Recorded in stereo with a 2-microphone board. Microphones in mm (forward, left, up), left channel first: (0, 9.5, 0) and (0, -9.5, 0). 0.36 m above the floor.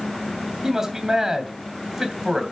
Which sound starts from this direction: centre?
A man speaking, at 0.6 s.